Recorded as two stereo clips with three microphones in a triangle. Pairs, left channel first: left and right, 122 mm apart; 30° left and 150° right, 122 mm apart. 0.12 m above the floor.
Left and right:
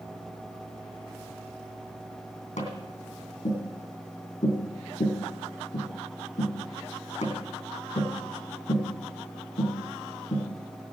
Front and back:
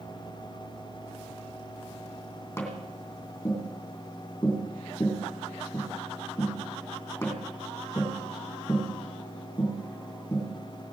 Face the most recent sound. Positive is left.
turn(degrees=100)